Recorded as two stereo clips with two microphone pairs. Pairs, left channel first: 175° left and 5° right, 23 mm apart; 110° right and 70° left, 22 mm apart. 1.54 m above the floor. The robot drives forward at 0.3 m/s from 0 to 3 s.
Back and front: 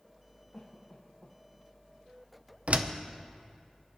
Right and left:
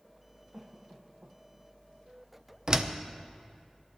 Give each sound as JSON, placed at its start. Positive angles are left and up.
{"t": 0.5, "sound": "a cough", "azimuth_deg": 120, "distance_m": 1.3}
{"t": 2.7, "sound": "a door slam", "azimuth_deg": 15, "distance_m": 0.7}